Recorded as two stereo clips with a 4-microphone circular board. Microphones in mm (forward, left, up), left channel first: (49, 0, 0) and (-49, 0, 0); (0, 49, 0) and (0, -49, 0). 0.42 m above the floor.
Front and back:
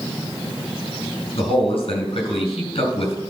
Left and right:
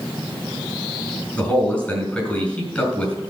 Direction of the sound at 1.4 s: 15° left.